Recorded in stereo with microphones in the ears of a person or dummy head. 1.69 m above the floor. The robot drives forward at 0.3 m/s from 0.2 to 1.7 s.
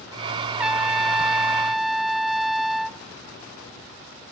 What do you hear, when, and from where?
0.6 s a trumpet: 5° right (ahead or behind)